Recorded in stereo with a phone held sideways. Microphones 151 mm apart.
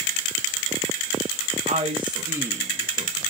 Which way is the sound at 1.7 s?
55° right (ahead or behind).